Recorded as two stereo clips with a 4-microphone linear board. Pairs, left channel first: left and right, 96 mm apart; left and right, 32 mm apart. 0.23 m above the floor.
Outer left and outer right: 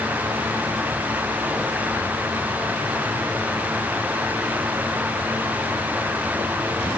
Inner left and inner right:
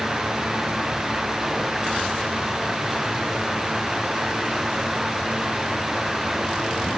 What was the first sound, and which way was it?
Only background noise.